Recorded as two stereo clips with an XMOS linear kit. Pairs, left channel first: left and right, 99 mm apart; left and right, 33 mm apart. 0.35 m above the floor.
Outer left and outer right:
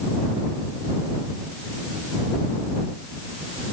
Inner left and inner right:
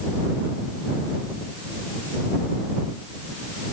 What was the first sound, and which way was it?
Only background noise.